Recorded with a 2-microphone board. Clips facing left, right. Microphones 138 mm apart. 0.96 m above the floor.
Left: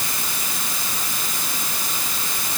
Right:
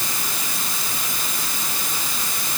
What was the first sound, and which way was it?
Only background noise.